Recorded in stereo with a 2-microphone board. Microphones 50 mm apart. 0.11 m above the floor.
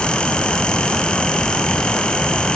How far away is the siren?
I don't hear a siren.